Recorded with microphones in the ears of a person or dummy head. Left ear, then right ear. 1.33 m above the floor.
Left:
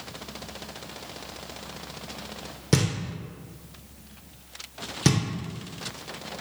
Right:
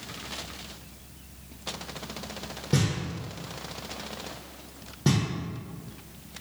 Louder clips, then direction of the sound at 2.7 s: Left 3 dB; 70° left (ahead or behind).